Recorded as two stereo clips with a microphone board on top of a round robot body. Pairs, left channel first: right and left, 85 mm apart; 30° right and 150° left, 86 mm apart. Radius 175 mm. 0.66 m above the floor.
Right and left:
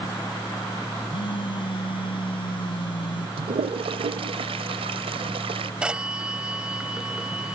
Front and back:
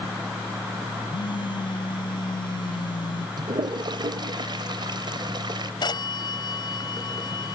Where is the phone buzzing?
65° right.